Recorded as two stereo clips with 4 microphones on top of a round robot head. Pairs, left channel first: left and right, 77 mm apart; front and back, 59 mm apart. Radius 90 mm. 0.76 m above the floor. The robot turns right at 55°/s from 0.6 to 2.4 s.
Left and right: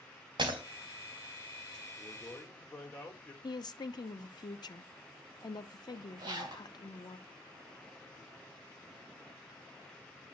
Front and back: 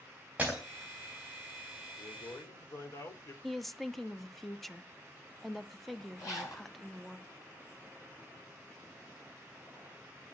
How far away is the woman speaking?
About 1.0 m.